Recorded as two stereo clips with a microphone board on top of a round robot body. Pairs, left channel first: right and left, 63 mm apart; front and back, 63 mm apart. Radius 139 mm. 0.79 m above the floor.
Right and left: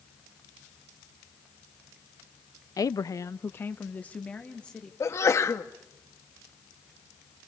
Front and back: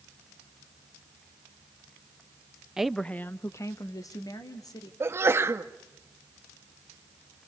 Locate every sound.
2.8 s a woman speaking: 100° right, 0.8 m; by 4.9 s 15° right, 2.5 m
5.0 s a sneeze: 135° right, 1.2 m